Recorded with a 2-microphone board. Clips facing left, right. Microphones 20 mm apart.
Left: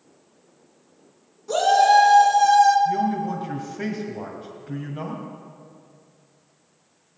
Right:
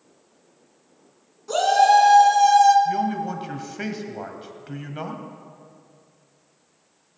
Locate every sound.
1.5 s a shout: 25° right (ahead or behind), 3.5 m; by 2.8 s 30° right (ahead or behind), 2.5 m
2.9 s a man speaking: 40° right (ahead or behind), 1.8 m